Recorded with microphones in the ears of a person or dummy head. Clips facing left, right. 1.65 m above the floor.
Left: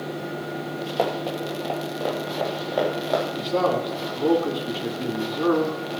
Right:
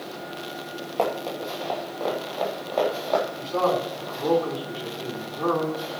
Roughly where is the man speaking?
Left.